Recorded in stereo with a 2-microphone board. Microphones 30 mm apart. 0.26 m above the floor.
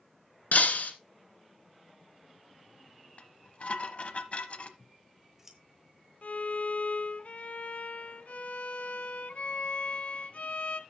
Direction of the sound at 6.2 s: 50° left (ahead or behind).